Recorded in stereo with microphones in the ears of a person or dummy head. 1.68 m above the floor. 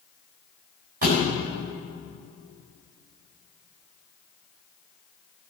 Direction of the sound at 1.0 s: 35° right (ahead or behind).